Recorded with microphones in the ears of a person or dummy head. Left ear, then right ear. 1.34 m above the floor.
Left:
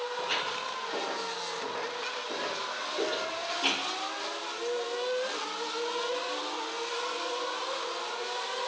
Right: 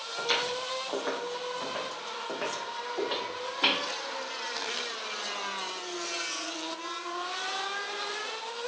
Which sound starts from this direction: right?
Footsteps, at 0.2 s.